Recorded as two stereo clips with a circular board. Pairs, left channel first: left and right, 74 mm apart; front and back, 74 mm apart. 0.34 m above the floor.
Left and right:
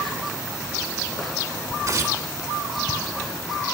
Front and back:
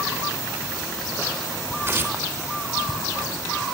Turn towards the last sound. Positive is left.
turn(degrees=-125)